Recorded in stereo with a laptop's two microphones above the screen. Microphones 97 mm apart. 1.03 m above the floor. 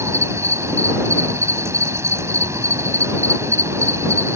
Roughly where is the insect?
Right.